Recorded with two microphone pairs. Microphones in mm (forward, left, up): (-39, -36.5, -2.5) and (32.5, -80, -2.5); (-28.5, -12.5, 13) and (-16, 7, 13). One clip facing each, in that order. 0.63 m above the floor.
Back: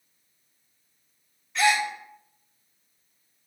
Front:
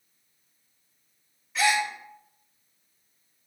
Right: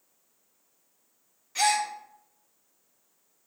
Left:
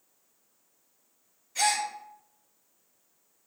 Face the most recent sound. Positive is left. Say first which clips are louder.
# back 2 dB, right 2 dB
turn(degrees=-115)